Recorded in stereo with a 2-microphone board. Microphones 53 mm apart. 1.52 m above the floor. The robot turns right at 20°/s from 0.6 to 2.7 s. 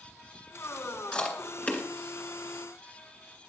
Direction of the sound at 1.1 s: 15° left (ahead or behind).